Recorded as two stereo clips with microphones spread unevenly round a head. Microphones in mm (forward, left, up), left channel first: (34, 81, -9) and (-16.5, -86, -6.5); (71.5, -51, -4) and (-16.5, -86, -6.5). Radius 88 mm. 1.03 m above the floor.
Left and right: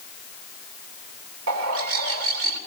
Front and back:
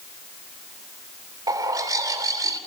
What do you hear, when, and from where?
1.5 s a bird: 110° right, 3 m